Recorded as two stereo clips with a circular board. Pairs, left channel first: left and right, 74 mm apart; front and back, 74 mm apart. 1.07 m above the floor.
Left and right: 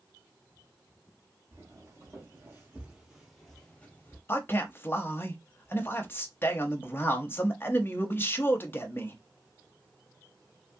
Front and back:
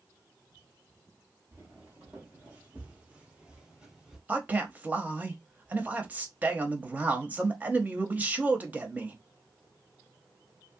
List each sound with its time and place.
1.5 s footsteps: 115° right, 1.6 m; by 4.2 s 105° left, 1.1 m
4.3 s a man speaking: 130° left, 0.7 m